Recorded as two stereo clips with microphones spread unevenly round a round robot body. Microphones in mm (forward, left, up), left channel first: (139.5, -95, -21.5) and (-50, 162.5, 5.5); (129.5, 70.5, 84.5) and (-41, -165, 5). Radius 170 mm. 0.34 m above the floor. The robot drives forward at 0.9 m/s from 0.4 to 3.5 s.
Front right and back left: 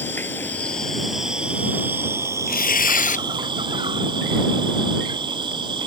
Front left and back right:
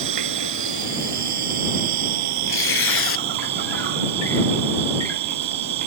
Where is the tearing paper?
10° left; by 3.2 s 15° left.